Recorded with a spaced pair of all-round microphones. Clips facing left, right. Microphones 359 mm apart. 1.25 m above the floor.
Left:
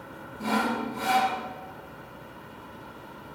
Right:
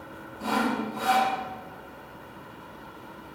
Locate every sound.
0.4 s sawing: 35° left (ahead or behind), 1.8 m